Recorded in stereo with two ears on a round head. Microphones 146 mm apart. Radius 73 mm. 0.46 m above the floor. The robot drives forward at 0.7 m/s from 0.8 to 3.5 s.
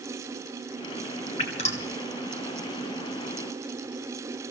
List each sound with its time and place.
1.4 s dripping: 35° left (ahead or behind), 3 m; by 1.9 s 40° left (ahead or behind), 2.5 m